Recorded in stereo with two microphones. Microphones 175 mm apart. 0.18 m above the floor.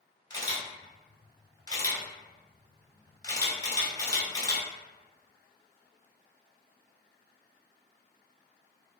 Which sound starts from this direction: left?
A camera shutter, at 0.3 s.